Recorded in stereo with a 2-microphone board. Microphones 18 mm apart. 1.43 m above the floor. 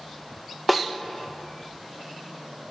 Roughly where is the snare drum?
Centre.